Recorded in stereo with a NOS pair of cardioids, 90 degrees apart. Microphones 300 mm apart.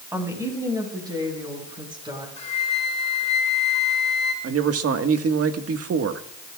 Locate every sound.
0.1 s a woman speaking: 10° right, 5.5 m; by 2.3 s 15° right, 8 m
2.4 s a flute: 25° left, 4 m
4.4 s a man speaking: 50° right, 1.7 m